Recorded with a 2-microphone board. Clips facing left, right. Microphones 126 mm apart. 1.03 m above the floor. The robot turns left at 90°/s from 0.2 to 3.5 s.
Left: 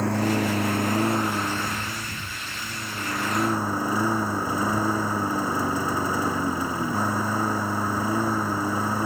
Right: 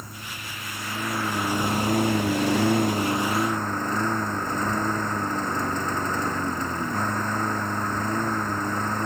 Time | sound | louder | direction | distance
0.0 | a lawn mower | left 18 dB | 105° left | ?